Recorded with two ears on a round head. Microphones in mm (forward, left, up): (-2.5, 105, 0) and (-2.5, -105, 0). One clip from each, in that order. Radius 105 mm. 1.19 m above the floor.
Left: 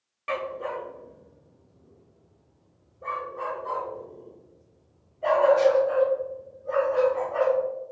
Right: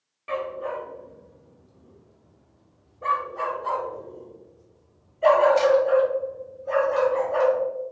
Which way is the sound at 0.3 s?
35° left (ahead or behind).